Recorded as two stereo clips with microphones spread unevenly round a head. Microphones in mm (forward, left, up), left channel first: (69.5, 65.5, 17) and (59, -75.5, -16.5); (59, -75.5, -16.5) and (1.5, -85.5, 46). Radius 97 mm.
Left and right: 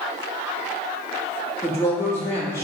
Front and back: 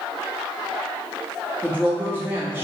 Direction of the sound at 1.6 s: 155° left.